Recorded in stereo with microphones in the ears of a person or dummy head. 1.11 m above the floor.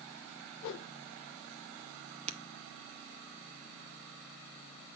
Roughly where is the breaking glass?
Right.